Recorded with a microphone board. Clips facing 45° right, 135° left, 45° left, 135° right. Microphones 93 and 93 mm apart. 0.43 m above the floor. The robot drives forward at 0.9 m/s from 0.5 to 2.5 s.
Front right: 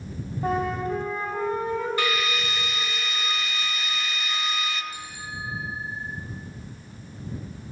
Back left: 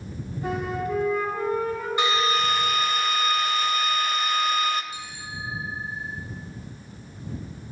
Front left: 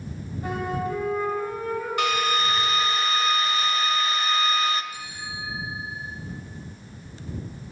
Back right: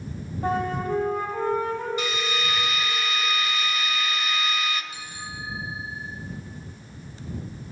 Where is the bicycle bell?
5° right, 3.5 m.